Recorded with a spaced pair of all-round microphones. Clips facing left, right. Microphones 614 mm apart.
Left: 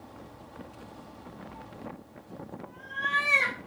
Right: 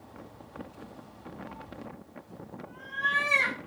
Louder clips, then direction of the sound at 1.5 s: Even; 30° right (ahead or behind).